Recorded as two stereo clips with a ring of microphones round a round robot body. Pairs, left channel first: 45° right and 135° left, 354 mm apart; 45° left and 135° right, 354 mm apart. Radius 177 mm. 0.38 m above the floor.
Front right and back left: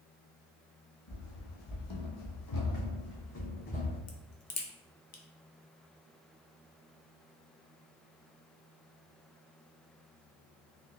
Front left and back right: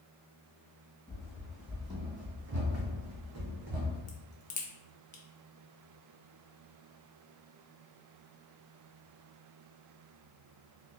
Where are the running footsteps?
35° right, 1.3 m; by 4.0 s 115° right, 1.5 m.